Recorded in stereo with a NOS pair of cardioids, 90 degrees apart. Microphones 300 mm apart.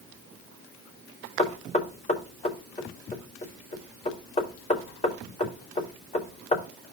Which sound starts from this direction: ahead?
Knocking, at 1.4 s.